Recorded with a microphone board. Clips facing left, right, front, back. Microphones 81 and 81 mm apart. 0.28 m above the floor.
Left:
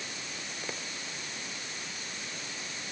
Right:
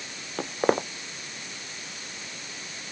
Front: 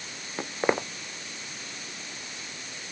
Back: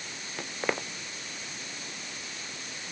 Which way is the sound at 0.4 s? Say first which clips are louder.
Right 20 dB, front 6 dB; 65° right.